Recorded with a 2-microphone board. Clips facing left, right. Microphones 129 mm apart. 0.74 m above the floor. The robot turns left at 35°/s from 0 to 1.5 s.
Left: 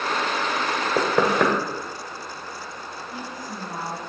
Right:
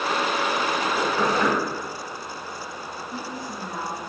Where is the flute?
No flute in this recording.